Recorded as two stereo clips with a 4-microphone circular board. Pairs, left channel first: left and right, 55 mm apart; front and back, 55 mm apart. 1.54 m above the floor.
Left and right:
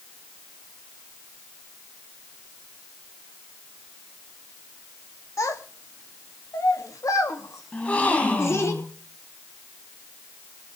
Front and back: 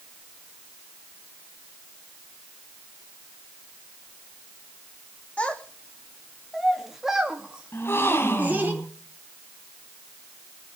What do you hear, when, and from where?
5.4 s a child speaking: 65° left, 2.5 m; by 8.7 s 125° left, 3 m
7.7 s a gasp: 30° left, 2.5 m